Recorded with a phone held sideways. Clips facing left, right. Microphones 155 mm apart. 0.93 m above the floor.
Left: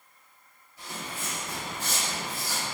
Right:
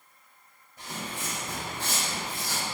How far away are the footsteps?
About 2.0 m.